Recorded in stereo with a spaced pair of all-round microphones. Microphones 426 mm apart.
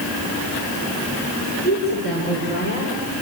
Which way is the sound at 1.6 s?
25° left (ahead or behind).